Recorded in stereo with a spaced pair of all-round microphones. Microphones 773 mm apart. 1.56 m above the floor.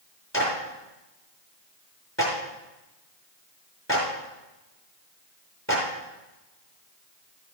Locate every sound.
0.3 s a clap: 20° left (ahead or behind), 5 m